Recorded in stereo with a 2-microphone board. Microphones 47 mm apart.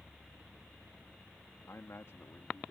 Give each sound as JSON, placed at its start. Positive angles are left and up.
{"t": 1.7, "sound": "a man speaking", "side_deg": 80}